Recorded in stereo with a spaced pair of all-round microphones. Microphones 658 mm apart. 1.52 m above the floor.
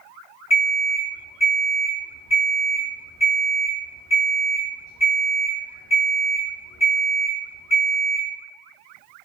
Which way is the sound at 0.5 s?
25° left (ahead or behind).